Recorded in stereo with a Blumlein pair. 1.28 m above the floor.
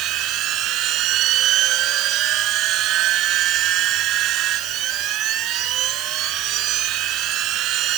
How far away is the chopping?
I don't hear chopping.